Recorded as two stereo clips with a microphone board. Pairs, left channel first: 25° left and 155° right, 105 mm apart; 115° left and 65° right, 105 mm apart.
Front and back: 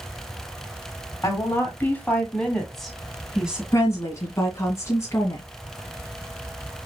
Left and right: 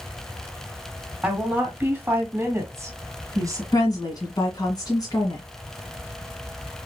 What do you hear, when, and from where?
1.2 s a woman speaking: 5° right, 1.8 m; by 3.6 s 85° right, 1.9 m
3.7 s a woman speaking: 75° left, 1.7 m